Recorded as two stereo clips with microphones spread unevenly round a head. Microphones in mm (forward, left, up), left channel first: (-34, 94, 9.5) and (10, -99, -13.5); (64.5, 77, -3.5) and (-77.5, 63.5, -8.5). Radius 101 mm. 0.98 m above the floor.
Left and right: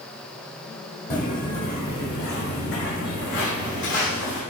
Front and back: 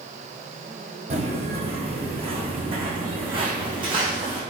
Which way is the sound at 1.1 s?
145° left.